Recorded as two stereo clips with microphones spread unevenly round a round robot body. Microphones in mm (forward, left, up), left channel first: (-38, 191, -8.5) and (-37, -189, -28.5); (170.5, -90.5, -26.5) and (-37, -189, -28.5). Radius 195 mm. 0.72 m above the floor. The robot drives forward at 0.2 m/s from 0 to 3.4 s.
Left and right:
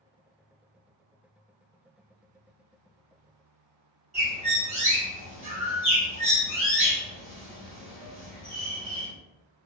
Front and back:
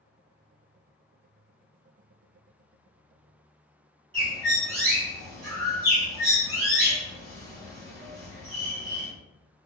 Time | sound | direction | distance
4.1 | a bird | 155° right | 1.8 m